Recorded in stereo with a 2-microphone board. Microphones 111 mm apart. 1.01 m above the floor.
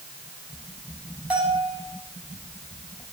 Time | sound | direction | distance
1.3 | a bell | 10° right (ahead or behind) | 9.5 m